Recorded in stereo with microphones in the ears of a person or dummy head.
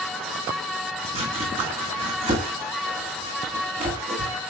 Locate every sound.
1.1 s chopping: 30° right (ahead or behind), 7 m